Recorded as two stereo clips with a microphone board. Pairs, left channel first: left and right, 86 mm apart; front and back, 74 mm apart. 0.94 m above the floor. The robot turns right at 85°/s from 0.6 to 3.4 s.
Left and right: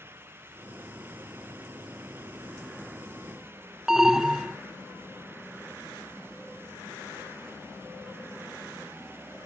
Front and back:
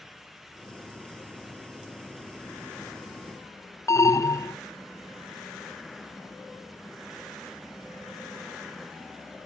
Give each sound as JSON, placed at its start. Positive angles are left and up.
{"t": 3.9, "sound": "an alarm", "azimuth_deg": -10}